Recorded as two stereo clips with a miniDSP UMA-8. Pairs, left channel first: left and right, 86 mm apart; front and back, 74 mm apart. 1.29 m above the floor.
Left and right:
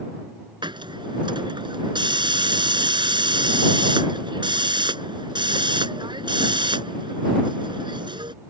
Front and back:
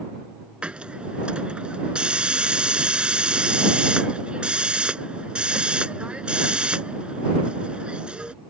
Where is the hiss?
105° right.